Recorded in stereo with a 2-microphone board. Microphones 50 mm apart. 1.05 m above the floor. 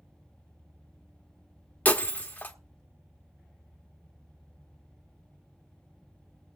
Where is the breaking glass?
35° left (ahead or behind), 1.0 m.